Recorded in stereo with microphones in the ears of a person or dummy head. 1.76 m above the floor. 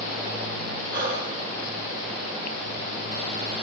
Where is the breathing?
50° right (ahead or behind), 5 m.